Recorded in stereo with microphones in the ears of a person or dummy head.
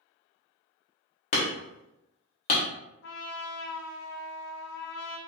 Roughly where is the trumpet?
Left.